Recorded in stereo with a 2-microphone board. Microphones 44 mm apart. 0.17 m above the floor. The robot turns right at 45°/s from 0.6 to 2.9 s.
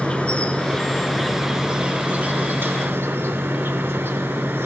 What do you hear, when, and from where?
0.0 s an insect: 150° left, 0.9 m; by 4.7 s 105° right, 0.9 m